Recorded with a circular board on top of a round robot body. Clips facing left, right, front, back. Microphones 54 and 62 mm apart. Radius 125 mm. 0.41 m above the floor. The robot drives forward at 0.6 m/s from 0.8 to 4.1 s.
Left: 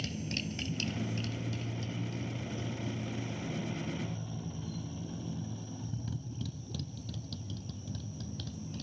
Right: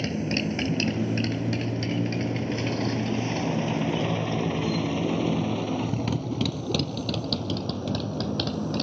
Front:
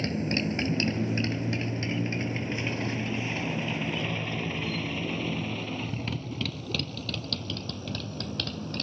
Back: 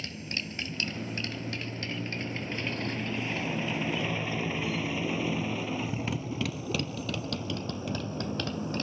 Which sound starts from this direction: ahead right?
A motorcycle, at 0.0 s.